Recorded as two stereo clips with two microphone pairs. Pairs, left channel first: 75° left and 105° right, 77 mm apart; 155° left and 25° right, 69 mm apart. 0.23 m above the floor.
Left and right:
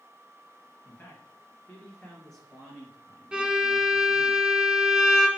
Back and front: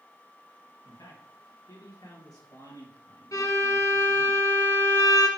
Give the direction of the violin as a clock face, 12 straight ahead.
6 o'clock.